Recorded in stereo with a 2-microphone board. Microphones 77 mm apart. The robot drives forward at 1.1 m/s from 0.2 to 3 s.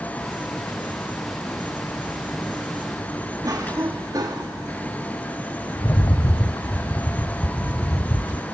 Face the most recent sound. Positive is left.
turn(degrees=50)  # may be behind; listen again after turning